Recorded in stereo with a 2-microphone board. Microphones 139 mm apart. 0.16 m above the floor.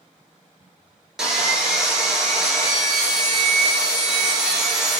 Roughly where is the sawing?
Centre.